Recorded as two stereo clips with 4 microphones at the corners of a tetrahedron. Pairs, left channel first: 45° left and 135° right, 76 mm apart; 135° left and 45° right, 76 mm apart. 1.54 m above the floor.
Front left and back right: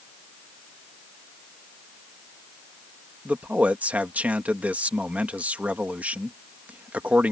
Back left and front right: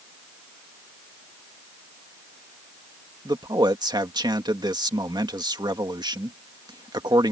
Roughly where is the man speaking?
Ahead right.